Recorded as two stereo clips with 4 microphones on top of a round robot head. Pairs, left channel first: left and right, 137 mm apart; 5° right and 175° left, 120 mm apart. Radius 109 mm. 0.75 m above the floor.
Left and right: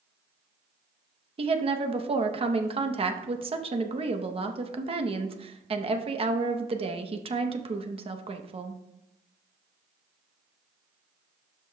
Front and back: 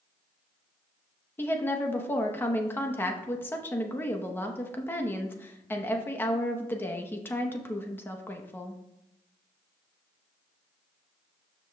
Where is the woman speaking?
70° right, 0.8 m.